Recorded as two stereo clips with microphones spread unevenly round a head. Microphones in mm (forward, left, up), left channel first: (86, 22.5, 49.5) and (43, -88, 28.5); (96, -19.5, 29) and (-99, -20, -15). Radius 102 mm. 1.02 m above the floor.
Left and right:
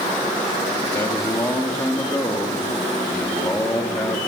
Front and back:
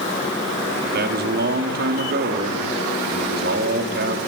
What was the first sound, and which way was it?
A man speaking, 145° left.